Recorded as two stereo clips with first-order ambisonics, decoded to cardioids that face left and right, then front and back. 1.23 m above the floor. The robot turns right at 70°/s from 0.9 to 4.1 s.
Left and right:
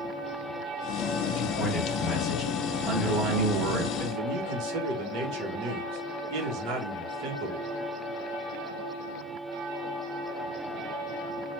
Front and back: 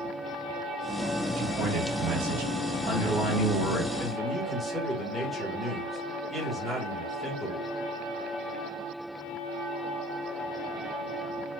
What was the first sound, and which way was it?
A man speaking, 115° left.